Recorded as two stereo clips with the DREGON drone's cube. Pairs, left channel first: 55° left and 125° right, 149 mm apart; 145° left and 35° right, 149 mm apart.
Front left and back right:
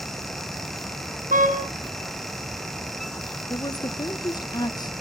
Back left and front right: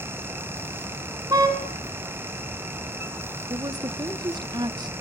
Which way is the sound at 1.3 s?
100° right.